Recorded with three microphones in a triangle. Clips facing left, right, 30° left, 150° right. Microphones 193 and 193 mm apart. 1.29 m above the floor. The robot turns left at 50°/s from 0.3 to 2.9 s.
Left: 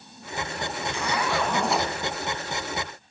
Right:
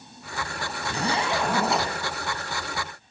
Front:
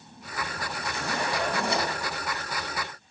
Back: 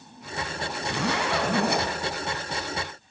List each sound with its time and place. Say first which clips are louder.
0.9 s a zipper: right 2 dB, back 4 dB; 140° right, 3.5 m; by 1.9 s 170° left, 3.5 m